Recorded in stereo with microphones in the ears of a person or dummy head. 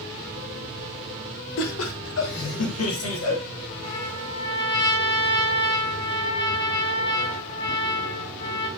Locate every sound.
1.6 s laughter: 75° left (ahead or behind), 1.6 m; by 3.4 s 85° left, 2.5 m
3.8 s a trumpet: 30° left (ahead or behind), 1.8 m